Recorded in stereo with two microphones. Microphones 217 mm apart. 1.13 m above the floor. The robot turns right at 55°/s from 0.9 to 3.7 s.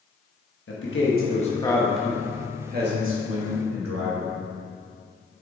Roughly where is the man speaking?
Behind left.